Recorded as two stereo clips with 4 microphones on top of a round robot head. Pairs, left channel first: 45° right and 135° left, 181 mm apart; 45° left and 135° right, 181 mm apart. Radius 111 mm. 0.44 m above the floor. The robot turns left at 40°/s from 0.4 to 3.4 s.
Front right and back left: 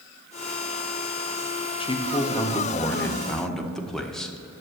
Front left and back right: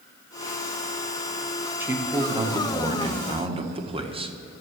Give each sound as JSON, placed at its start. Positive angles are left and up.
{"t": 1.8, "sound": "a man speaking", "azimuth_deg": -65, "distance_m": 1.3}